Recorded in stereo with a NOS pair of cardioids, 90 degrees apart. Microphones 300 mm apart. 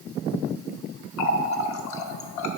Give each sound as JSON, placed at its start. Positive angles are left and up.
{"t": 1.2, "sound": "a running tap", "azimuth_deg": 65, "distance_m": 0.9}